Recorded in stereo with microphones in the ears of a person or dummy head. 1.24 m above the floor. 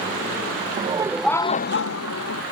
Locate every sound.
0.8 s laughter: 30° right (ahead or behind); by 2.4 s 80° left